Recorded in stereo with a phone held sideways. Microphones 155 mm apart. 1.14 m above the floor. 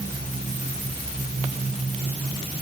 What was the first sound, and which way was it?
Only background noise.